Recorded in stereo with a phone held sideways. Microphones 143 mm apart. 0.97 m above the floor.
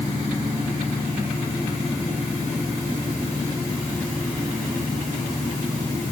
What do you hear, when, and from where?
Only background noise.